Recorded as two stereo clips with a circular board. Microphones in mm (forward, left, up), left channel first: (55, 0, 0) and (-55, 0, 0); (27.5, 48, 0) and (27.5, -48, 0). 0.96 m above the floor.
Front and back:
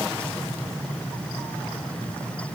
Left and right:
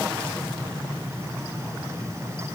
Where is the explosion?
No explosion in this recording.